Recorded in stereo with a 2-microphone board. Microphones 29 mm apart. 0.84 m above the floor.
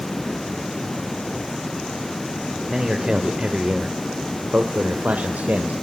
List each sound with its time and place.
2.7 s a man speaking: 20° right (ahead or behind), 3 m; by 5.7 s 80° right, 3.5 m